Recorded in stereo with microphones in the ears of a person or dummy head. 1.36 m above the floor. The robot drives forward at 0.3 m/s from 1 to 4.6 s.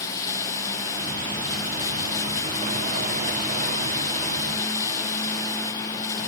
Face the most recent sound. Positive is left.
turn(degrees=15)  # may be behind; listen again after turning